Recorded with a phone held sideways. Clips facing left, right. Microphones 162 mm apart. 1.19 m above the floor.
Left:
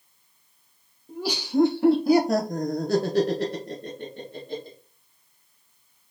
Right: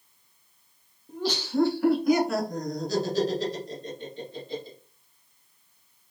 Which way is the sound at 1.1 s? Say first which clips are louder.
Left 2 dB; 5° left (ahead or behind).